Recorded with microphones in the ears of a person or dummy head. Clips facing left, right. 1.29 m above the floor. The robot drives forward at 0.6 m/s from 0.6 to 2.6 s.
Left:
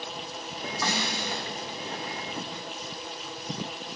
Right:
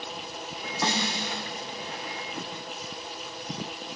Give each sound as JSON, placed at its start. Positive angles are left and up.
{"t": 0.8, "sound": "a snare drum", "side_deg": -20, "distance_m": 1.1}